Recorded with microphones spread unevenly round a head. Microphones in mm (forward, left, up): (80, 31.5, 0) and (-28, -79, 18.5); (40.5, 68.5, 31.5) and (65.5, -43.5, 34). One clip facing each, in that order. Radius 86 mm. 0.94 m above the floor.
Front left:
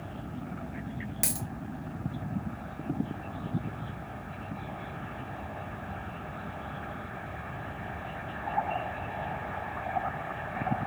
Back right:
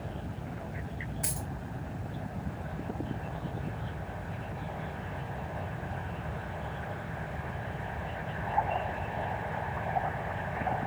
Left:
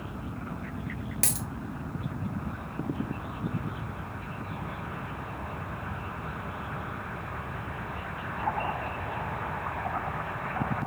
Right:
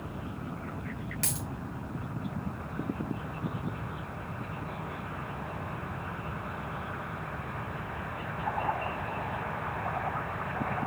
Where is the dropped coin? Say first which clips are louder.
Front left 2 dB, left 2 dB; 60° left, 1.3 m.